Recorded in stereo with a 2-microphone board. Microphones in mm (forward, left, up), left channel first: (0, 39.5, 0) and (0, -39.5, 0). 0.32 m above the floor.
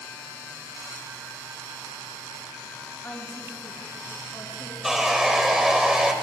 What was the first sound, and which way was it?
A woman speaking, 25° left (ahead or behind).